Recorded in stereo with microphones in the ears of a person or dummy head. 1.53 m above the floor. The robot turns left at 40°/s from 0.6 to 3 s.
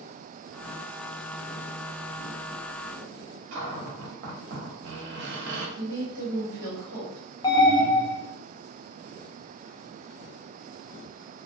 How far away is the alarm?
About 0.5 m.